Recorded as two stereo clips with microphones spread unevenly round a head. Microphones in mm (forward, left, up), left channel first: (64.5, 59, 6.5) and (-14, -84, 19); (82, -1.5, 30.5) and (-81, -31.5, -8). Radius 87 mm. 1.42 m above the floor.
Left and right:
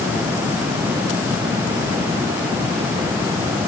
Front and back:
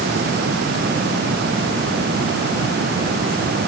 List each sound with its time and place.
Only background noise.